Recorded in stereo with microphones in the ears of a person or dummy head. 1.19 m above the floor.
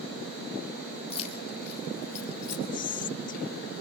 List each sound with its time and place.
1.1 s keys jangling: 35° left (ahead or behind), 3.5 m; by 2.6 s 45° left (ahead or behind), 5 m
2.7 s whispering: 40° left (ahead or behind), 0.8 m